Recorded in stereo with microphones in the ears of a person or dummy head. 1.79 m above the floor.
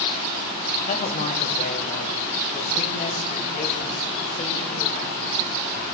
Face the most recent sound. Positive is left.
turn(degrees=40)  # may be behind; listen again after turning